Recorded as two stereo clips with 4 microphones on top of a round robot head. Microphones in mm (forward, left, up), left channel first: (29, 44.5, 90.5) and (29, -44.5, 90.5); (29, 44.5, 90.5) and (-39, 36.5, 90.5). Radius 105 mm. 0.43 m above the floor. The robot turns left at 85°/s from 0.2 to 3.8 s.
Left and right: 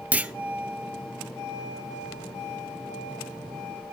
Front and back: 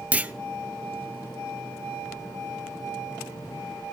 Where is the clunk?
140° right, 0.6 m; by 0.3 s 150° right, 0.6 m.